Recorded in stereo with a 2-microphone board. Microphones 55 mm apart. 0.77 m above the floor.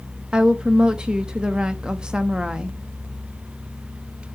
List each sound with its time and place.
0.3 s a woman speaking: 15° right (ahead or behind), 0.7 m